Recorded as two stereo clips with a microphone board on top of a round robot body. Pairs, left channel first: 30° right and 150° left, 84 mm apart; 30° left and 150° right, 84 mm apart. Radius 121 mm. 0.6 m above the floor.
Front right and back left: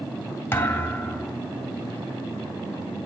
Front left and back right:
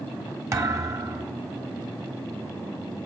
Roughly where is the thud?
Right.